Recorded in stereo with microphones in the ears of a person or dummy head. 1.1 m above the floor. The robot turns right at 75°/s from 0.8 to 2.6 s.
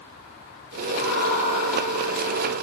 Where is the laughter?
100° left, 4.5 m; by 2.5 s 140° right, 4.5 m.